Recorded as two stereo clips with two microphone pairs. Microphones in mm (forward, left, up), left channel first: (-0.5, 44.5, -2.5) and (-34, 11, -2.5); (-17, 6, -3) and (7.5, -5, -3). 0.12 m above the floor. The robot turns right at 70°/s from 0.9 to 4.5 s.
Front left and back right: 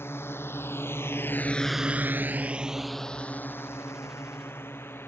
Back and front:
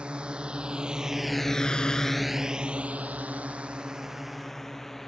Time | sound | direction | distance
0.0 | a drone | 20° left | ?